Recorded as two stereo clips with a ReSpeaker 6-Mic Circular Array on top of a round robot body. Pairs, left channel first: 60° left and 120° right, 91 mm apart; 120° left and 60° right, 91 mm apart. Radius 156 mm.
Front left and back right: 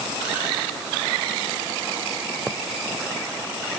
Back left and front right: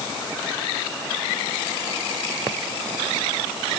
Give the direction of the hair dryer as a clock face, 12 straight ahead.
I don't hear a hair dryer.